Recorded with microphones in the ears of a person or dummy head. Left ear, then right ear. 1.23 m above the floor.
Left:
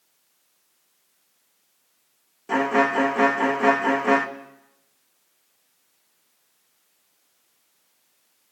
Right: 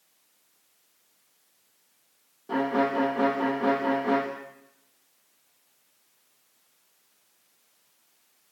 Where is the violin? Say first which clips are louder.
Left 5 dB; 60° left (ahead or behind), 2.0 m.